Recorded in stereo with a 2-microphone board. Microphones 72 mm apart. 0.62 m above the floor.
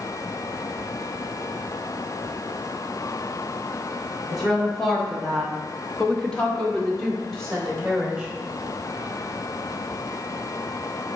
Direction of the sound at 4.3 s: Centre (ahead or behind).